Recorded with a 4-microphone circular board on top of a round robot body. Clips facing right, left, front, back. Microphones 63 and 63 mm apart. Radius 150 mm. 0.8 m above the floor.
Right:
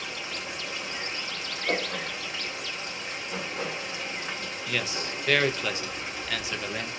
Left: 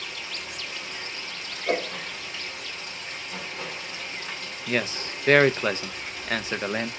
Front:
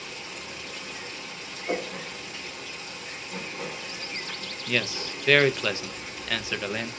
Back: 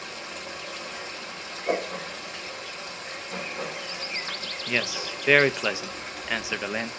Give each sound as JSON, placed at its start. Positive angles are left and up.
{"t": 0.0, "sound": "running water", "azimuth_deg": -150, "distance_m": 2.0}
{"t": 1.7, "sound": "a whoosh", "azimuth_deg": 160, "distance_m": 2.0}
{"t": 4.7, "sound": "a man speaking", "azimuth_deg": 115, "distance_m": 0.7}